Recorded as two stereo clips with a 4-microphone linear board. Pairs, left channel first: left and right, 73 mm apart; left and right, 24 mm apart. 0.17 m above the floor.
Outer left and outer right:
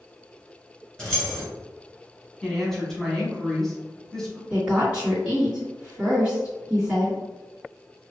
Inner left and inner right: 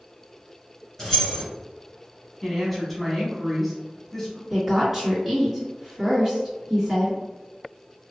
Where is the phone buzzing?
No phone buzzing in this recording.